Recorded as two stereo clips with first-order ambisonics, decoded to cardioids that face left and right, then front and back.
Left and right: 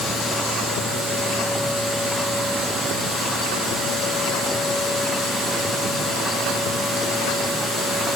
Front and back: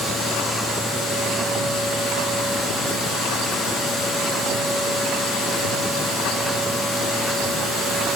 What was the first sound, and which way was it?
Only background noise.